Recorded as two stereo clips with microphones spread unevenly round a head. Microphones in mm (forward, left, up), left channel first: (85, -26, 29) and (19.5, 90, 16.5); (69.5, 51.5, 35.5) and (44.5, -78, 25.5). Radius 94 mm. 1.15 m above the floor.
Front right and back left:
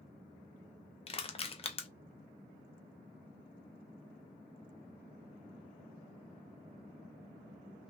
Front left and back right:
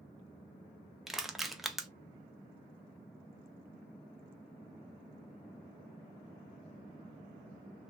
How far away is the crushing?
About 0.6 m.